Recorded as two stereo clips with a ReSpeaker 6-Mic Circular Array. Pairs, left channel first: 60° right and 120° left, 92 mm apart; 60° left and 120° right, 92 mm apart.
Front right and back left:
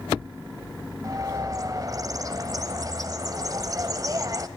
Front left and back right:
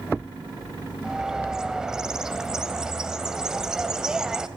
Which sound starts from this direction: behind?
A bird, at 1.0 s.